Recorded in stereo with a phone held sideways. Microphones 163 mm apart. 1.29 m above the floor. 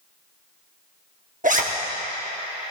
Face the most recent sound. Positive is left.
turn(degrees=-50)  # may be behind; listen again after turning